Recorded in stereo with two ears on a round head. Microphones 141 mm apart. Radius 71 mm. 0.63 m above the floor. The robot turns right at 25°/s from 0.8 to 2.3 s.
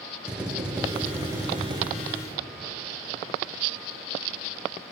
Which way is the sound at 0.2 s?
5° right (ahead or behind).